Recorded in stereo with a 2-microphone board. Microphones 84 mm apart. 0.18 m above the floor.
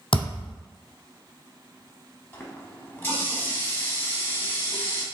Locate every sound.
0.1 s a thud: 75° left (ahead or behind), 0.8 m
2.3 s a running tap: 25° left (ahead or behind), 0.7 m